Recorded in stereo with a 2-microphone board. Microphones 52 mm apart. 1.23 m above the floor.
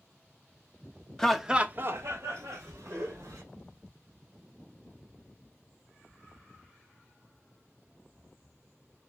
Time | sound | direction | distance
1.2 | laughter | 10° left (ahead or behind) | 0.6 m